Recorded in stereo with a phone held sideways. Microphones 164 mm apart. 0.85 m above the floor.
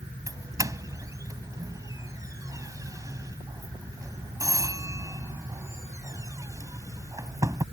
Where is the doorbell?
20° right (ahead or behind).